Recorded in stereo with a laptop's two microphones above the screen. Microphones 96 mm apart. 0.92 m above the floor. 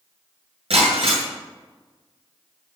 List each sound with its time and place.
0.7 s breaking glass: 80° right, 7.5 m